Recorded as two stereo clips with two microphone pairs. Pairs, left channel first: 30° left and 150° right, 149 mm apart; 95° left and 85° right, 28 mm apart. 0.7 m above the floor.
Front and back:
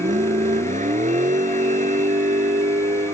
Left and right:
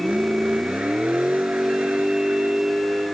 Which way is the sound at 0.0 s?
120° right.